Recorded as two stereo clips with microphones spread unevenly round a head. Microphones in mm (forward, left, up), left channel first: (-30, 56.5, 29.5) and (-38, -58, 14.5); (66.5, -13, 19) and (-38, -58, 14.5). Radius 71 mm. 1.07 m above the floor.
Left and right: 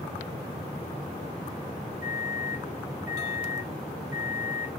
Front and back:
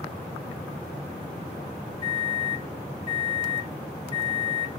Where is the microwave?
15° right, 1.8 m.